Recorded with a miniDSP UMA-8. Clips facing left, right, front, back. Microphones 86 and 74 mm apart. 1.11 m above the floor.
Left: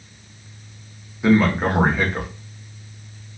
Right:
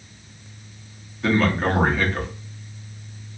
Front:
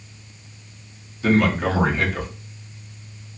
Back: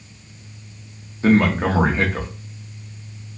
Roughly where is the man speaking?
Behind.